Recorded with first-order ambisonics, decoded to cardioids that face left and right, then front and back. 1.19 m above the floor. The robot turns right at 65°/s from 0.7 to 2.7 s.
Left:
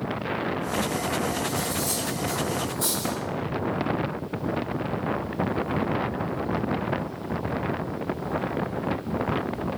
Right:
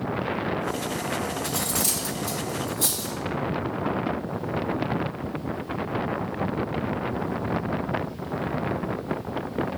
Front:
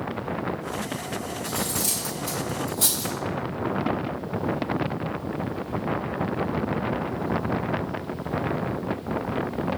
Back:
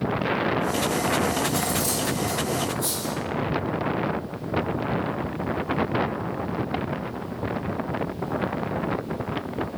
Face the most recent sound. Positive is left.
turn(degrees=-10)